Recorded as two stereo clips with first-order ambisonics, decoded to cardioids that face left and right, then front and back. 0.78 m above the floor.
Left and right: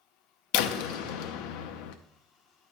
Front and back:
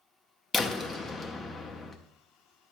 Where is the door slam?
85° left, 0.6 m.